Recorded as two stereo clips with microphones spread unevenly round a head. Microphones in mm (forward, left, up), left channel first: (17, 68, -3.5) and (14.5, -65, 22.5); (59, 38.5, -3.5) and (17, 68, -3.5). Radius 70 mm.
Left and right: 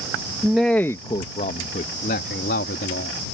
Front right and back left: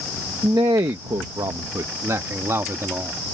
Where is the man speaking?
175° right; by 3.1 s 100° left.